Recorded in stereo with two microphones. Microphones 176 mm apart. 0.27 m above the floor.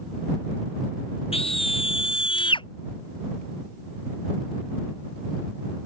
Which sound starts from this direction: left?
A scream, at 1.3 s.